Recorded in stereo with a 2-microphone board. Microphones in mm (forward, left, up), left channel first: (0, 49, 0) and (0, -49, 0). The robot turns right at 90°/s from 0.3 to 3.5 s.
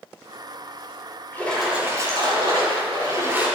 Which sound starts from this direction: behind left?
A splash, at 1.3 s.